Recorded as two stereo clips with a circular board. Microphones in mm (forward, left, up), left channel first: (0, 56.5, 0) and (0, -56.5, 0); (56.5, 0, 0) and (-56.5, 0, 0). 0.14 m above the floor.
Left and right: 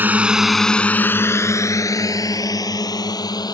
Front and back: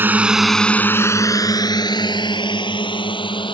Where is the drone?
140° right; by 3.5 s 40° left.